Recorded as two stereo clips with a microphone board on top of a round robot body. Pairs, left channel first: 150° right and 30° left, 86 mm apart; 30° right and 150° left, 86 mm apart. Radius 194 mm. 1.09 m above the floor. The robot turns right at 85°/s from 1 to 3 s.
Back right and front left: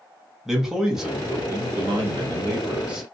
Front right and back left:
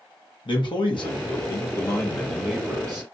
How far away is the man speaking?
About 1.0 m.